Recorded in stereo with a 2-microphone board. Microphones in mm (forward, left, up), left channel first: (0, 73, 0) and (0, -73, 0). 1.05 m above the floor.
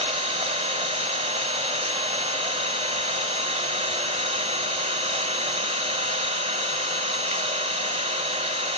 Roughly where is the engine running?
Right.